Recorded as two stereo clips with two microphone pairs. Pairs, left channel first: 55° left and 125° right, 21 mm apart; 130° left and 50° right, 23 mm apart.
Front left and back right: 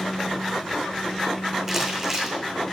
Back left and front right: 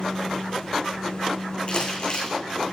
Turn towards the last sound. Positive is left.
turn(degrees=165)